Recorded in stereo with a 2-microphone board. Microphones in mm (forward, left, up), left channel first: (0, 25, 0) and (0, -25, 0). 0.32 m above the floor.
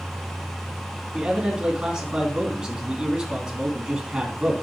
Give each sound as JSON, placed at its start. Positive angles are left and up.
{"t": 1.1, "sound": "a man speaking", "side_deg": -15, "distance_m": 4.0}